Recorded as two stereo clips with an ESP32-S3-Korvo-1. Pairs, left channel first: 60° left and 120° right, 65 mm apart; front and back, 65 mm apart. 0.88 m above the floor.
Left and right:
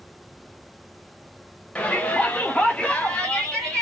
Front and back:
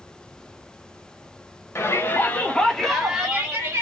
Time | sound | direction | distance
1.8 | a shout | straight ahead | 1.0 m